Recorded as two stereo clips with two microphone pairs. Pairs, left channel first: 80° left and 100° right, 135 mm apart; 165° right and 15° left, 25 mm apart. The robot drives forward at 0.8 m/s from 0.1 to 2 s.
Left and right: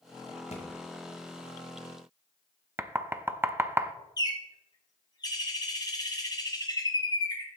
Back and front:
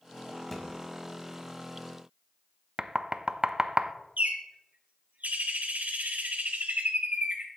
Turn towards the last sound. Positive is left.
turn(degrees=20)